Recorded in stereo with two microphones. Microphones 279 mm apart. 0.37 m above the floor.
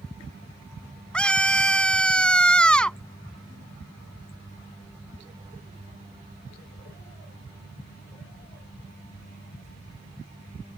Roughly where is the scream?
Centre.